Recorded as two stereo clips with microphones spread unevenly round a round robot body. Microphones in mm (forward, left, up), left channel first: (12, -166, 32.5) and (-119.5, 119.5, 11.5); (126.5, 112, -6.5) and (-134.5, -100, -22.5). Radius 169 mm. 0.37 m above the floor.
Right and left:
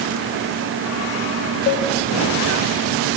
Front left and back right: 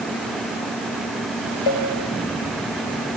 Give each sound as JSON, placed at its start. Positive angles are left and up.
{"t": 1.7, "sound": "a cowbell", "azimuth_deg": 5, "distance_m": 1.3}